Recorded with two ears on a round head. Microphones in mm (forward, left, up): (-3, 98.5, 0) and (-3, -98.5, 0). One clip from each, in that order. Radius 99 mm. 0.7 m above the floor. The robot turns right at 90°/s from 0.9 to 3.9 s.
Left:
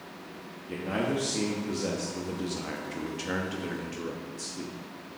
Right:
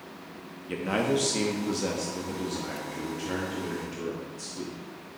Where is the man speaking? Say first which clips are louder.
Right 3 dB; 110° right, 0.8 m; by 4.8 s 160° left, 0.8 m.